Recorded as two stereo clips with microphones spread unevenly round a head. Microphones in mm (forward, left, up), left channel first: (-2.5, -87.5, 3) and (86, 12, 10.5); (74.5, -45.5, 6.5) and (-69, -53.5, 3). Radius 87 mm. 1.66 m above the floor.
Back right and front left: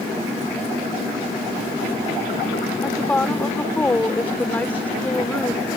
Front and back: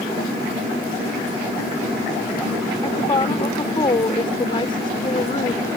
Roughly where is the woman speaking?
Ahead right.